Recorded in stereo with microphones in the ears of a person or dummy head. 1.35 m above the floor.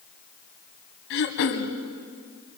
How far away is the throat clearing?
About 2 m.